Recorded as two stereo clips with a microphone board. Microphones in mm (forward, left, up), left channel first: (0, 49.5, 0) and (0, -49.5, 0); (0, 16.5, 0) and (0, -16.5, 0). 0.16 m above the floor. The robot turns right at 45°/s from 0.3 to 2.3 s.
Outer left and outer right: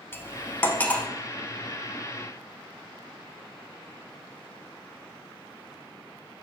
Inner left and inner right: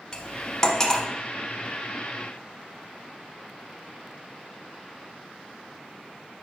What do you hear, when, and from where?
0.1 s cutlery clinking: 25° left (ahead or behind), 0.7 m; by 1.1 s 10° left (ahead or behind), 0.7 m